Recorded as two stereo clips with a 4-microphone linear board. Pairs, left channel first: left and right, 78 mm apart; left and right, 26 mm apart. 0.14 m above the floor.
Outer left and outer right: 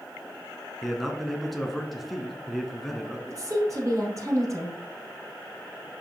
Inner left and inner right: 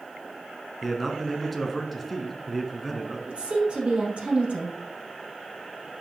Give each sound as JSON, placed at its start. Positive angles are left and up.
{"t": 0.8, "sound": "a man speaking", "side_deg": 0, "distance_m": 1.6}
{"t": 3.3, "sound": "a woman speaking", "side_deg": -45, "distance_m": 4.0}